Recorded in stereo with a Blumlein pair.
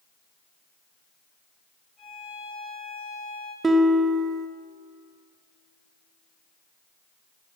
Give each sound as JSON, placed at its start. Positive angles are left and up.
{"t": 2.0, "sound": "a violin", "azimuth_deg": 0, "distance_m": 4.5}
{"t": 3.6, "sound": "a guitar", "azimuth_deg": -15, "distance_m": 0.5}